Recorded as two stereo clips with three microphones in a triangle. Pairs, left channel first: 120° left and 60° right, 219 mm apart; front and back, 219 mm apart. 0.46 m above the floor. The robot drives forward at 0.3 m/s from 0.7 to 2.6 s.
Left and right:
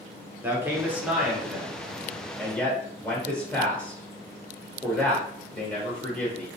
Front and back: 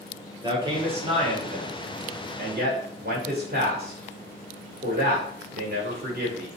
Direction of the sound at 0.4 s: 135° right.